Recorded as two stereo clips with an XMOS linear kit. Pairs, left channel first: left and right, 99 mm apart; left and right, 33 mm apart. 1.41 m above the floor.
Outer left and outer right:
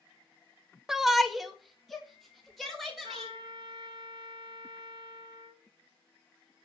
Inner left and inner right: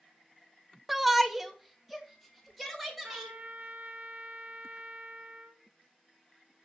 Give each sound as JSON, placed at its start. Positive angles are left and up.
{"t": 0.9, "sound": "a shout", "side_deg": -5, "distance_m": 0.6}
{"t": 3.0, "sound": "a trumpet", "side_deg": -45, "distance_m": 2.5}